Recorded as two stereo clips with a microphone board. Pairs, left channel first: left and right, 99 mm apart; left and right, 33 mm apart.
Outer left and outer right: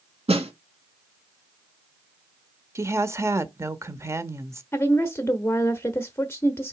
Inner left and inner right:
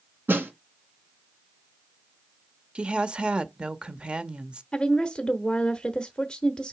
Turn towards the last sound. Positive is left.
turn(degrees=25)  # may be behind; listen again after turning